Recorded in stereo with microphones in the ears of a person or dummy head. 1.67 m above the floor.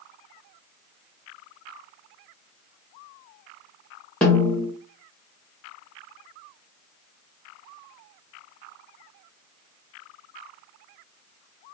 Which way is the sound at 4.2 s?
5° left (ahead or behind).